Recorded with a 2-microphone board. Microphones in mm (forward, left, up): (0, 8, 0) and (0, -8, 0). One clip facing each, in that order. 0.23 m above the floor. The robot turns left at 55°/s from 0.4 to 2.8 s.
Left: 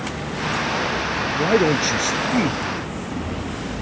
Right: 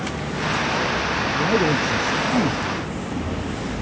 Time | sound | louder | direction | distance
1.4 | a man speaking | left 3 dB | 95° left | ?